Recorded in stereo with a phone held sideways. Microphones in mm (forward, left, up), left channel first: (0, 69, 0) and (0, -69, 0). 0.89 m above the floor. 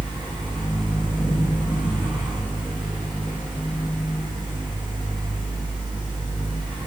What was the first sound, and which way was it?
A fan, 30° right (ahead or behind).